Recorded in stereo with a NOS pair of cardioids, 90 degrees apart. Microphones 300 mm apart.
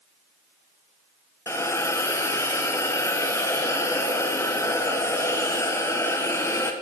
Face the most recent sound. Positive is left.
turn(degrees=10)